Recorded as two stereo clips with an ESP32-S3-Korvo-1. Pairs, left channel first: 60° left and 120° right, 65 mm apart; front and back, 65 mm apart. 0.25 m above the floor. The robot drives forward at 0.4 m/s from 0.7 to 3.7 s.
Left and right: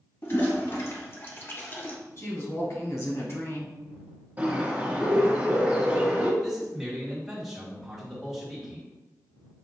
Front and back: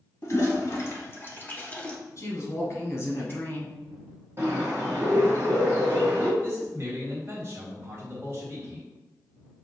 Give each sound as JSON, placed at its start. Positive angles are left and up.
{"t": 0.2, "sound": "a toilet flushing", "azimuth_deg": 25, "distance_m": 0.9}
{"t": 2.2, "sound": "a woman speaking", "azimuth_deg": 30, "distance_m": 1.7}
{"t": 4.4, "sound": "a bird", "azimuth_deg": -170, "distance_m": 1.5}
{"t": 6.4, "sound": "a man speaking", "azimuth_deg": 160, "distance_m": 2.0}